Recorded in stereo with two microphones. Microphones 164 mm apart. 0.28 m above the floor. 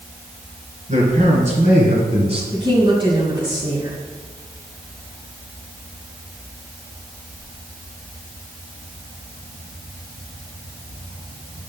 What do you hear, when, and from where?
0.9 s a man speaking: 50° right (ahead or behind), 3.5 m; by 2.4 s 35° right (ahead or behind), 2 m
2.5 s a woman speaking: 30° right (ahead or behind), 2.0 m